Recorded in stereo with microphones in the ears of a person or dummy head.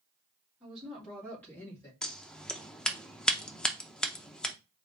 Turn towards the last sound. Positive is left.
turn(degrees=5)  # may be behind; listen again after turning